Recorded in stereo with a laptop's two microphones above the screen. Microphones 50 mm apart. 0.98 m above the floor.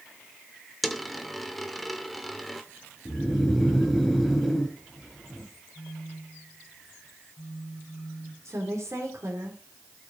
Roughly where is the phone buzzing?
Left.